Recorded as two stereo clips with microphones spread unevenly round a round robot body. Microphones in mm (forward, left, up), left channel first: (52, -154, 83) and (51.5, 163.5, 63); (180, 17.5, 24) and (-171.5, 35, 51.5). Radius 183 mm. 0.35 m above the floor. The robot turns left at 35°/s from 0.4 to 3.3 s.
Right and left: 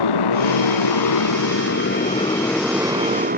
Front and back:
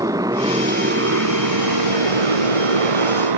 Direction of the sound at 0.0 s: 100° right.